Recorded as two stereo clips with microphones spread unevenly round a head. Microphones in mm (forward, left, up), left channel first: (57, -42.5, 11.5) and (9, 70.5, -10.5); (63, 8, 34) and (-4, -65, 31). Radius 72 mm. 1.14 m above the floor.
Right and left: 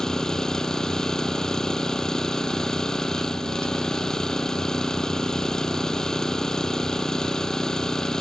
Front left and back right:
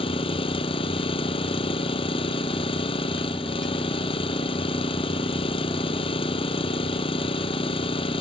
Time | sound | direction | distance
0.0 | an engine running | 20° left | ?